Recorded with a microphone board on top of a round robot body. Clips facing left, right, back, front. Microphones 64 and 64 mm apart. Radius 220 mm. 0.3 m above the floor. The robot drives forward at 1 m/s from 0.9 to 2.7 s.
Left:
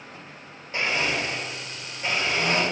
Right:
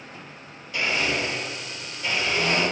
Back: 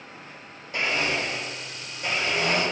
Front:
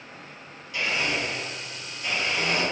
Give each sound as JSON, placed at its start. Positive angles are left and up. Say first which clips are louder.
{"t": 0.7, "sound": "a blender", "louder": "even, back 1 dB", "azimuth_deg": 140, "distance_m": 3.0}